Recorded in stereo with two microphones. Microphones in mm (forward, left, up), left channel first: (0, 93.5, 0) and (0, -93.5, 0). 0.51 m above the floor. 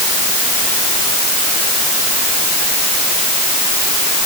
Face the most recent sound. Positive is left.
No sound to turn to.